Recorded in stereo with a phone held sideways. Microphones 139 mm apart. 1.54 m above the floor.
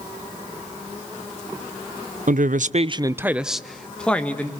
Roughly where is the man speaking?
Right.